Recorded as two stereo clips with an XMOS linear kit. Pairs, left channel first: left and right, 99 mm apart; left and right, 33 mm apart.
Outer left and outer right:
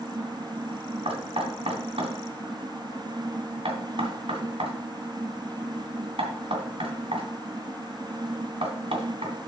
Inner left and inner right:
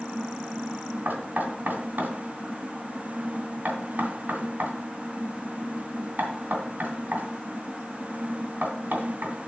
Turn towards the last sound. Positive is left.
turn(degrees=-75)  # may be behind; listen again after turning